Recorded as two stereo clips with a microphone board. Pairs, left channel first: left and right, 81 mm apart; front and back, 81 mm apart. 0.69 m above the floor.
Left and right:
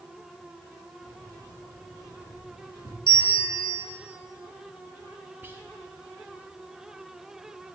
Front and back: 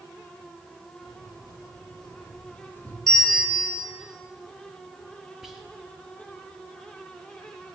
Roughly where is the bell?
Left.